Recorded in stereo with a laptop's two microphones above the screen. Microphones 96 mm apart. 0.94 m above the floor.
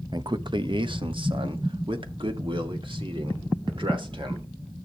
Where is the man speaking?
50° right (ahead or behind), 0.7 m; by 4.5 s 65° right (ahead or behind), 3.5 m.